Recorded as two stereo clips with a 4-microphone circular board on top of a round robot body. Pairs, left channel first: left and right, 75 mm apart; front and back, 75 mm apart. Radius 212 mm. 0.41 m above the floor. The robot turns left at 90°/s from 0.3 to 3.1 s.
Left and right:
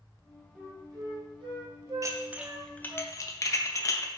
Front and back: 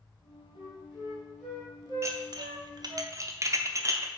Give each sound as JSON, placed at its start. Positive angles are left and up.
{"t": 0.6, "sound": "a flute", "azimuth_deg": -15, "distance_m": 3.0}
{"t": 2.0, "sound": "dishes clattering", "azimuth_deg": -130, "distance_m": 1.0}